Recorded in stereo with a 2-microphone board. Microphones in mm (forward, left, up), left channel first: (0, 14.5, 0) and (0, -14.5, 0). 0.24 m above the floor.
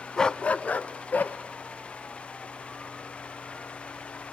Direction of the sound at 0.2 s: 20° left (ahead or behind).